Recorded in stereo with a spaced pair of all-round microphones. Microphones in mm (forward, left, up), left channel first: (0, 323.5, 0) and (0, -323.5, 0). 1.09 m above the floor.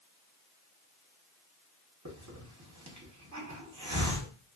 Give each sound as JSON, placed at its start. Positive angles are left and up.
{"t": 2.0, "sound": "a hiss", "side_deg": -30, "distance_m": 0.8}